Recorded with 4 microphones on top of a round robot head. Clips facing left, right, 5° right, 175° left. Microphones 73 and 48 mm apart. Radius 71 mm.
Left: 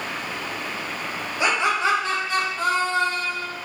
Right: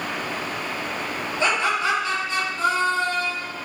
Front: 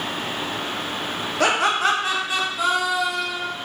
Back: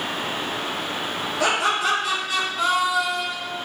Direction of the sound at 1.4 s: 15° left.